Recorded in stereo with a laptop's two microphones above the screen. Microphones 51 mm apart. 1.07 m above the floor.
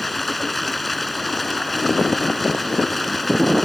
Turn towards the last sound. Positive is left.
turn(degrees=0)  # may be behind; listen again after turning